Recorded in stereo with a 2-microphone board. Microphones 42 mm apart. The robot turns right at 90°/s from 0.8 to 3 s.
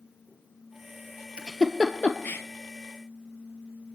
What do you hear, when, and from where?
1.4 s a giggle: 25° right (ahead or behind), 0.9 m; by 2.4 s 65° left (ahead or behind), 0.9 m